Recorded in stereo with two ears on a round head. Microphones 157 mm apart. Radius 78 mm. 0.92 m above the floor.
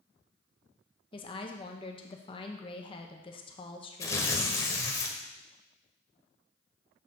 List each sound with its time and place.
1.1 s a woman speaking: 30° left (ahead or behind), 0.8 m
4.0 s tearing paper: 15° left (ahead or behind), 1.0 m